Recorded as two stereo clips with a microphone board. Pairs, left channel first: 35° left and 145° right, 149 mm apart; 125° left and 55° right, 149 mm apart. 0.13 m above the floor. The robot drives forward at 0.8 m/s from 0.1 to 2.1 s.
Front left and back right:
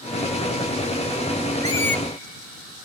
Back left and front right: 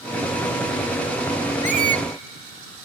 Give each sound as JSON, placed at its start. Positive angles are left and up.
{"t": 1.6, "sound": "a squeak", "azimuth_deg": -25, "distance_m": 0.7}